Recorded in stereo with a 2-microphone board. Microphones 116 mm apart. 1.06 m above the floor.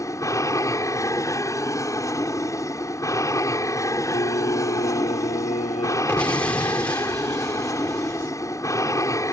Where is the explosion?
10° left (ahead or behind).